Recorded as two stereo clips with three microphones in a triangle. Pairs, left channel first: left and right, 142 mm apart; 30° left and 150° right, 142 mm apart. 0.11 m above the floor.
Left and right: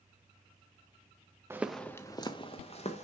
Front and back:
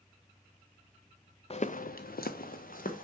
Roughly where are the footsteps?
Ahead.